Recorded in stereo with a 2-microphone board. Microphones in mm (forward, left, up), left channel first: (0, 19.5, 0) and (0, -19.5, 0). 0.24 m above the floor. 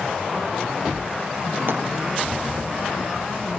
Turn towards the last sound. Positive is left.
turn(degrees=-65)  # may be behind; listen again after turning